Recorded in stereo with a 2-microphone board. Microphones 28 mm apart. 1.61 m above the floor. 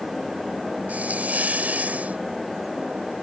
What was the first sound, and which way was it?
A hiss, 70° right (ahead or behind).